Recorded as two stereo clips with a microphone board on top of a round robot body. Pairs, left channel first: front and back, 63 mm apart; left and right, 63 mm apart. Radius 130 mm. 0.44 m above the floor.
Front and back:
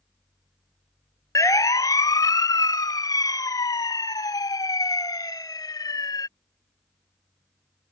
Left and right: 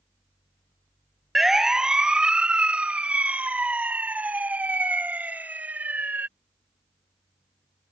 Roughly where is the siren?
Ahead.